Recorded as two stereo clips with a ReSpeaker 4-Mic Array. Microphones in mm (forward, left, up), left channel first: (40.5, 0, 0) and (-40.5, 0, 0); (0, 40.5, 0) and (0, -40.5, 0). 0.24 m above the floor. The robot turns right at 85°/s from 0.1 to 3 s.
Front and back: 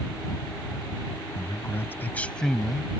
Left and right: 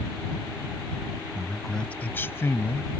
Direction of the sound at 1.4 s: 20° right.